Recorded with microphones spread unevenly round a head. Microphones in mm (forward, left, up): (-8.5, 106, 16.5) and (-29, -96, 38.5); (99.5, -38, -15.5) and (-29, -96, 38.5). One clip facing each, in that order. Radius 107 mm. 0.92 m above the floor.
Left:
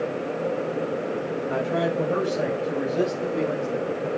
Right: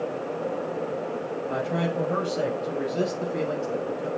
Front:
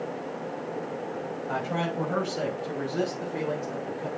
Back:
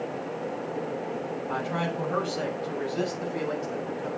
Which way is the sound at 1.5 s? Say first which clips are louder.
Left 3 dB, front 1 dB; 5° right.